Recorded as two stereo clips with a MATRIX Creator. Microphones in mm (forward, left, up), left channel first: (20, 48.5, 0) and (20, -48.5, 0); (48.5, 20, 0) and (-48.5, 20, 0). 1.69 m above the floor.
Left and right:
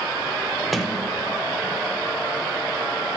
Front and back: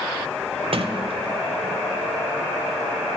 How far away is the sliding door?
About 1.1 m.